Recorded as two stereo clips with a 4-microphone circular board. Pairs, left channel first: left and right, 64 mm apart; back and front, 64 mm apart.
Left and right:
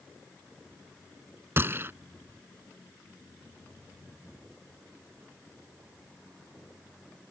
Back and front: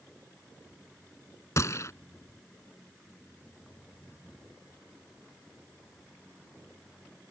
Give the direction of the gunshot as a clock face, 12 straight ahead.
5 o'clock.